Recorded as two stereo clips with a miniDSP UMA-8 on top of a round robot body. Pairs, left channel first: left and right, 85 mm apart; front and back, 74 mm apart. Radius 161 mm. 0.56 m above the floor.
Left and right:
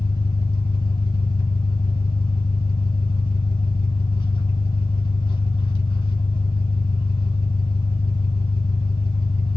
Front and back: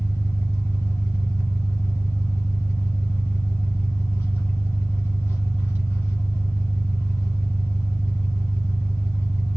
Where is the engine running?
60° left, 1.8 m.